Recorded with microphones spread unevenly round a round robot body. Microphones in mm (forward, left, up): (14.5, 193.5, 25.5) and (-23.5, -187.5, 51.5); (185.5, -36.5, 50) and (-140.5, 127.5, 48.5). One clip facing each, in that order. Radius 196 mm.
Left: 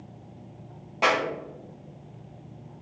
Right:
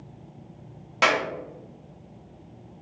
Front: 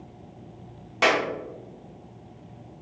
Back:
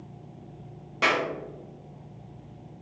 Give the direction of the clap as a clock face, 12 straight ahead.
3 o'clock.